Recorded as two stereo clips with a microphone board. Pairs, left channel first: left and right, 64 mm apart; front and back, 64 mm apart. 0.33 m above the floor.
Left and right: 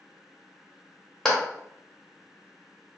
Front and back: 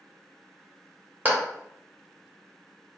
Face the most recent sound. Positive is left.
turn(degrees=165)